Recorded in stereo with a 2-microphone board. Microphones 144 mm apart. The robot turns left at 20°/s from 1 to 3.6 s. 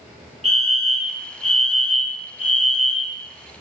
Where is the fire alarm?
5° right (ahead or behind), 1.1 m; by 3.2 s 15° right (ahead or behind), 1.1 m.